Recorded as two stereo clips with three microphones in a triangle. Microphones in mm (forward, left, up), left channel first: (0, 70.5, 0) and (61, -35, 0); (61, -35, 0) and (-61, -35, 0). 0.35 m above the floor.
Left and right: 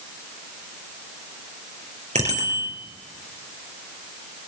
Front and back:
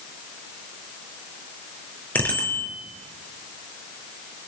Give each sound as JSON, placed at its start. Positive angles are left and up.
{"t": 2.1, "sound": "a bicycle bell", "azimuth_deg": -75, "distance_m": 4.0}